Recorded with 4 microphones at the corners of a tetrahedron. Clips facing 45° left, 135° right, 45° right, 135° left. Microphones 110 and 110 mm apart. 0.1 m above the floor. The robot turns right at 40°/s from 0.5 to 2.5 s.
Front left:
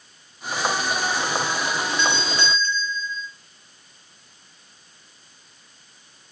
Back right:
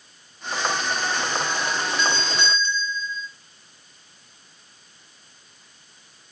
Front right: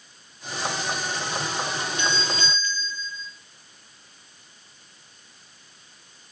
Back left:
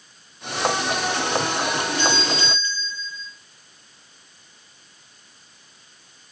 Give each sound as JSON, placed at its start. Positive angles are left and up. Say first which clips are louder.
{"t": 2.0, "sound": "a doorbell", "louder": "front left 1 dB, back left 4 dB", "azimuth_deg": 145, "distance_m": 2.5}